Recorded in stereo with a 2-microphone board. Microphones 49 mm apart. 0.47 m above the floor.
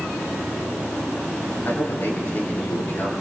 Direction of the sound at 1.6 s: 50° left (ahead or behind).